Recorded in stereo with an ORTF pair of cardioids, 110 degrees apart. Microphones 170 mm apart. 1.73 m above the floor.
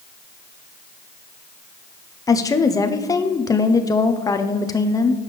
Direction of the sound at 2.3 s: 20° left.